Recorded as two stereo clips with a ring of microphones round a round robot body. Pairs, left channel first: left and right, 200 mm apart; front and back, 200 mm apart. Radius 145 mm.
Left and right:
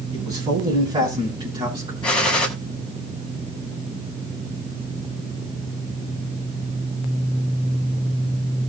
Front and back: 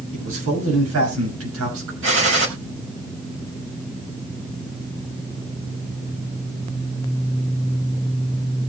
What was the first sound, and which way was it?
A man speaking, 160° right.